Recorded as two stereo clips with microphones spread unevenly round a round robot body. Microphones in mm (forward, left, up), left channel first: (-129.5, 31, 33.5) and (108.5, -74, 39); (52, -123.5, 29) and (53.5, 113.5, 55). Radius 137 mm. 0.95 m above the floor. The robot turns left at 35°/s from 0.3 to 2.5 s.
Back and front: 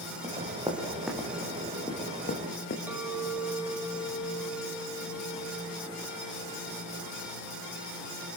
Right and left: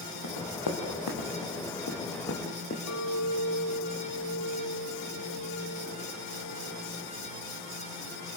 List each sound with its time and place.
0.2 s running footsteps: 90° right, 5 m; by 2.8 s 150° right, 5 m
2.9 s a clink: 105° right, 3 m